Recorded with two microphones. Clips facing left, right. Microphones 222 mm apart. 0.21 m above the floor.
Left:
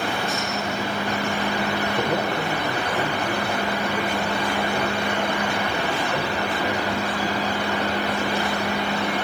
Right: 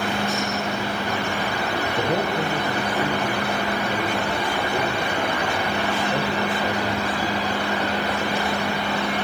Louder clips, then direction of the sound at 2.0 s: Right 3 dB; 25° right (ahead or behind).